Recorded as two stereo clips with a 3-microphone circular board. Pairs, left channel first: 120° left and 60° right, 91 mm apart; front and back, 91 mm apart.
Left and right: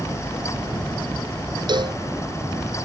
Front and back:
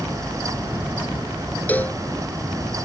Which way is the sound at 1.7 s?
70° right.